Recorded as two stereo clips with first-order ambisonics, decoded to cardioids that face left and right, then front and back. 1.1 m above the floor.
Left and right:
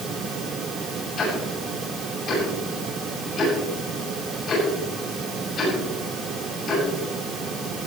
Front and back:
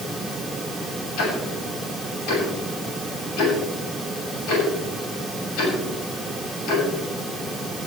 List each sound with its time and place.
1.2 s ticking: 25° left, 8 m